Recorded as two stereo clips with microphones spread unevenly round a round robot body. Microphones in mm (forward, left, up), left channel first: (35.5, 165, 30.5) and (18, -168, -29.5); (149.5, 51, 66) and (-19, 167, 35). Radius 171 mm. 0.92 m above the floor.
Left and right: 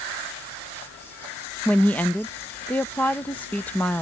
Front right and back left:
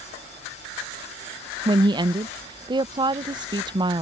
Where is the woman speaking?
175° right.